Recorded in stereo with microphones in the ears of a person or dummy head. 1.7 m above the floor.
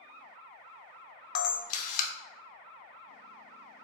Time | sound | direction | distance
1.4 | a camera shutter | 45° left (ahead or behind) | 0.5 m